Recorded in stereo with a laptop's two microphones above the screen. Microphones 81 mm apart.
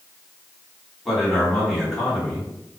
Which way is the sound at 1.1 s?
Centre (ahead or behind).